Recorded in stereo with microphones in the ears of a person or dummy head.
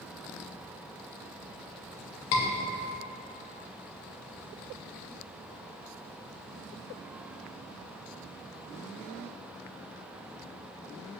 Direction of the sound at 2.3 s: 60° left (ahead or behind).